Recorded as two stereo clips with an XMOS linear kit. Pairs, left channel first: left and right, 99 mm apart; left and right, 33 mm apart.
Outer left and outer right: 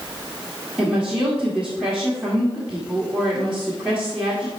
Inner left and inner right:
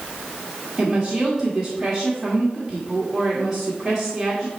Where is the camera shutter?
I don't hear a camera shutter.